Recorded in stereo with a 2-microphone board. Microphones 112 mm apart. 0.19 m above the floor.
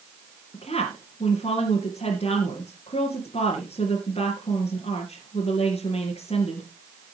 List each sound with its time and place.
0.5 s a woman speaking: 65° left (ahead or behind), 3 m